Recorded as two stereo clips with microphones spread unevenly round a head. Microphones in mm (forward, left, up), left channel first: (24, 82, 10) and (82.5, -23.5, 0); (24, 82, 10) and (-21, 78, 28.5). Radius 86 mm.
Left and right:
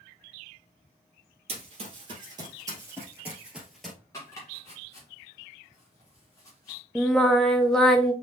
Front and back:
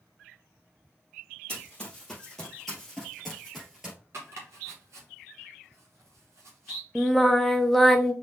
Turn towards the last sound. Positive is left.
turn(degrees=180)